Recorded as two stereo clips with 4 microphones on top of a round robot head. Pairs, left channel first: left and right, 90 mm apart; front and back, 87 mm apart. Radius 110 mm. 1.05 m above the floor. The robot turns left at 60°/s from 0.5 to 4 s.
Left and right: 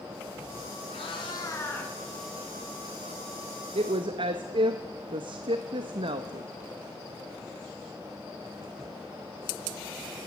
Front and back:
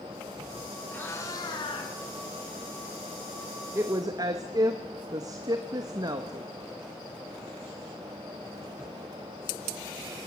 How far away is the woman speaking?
About 1.0 m.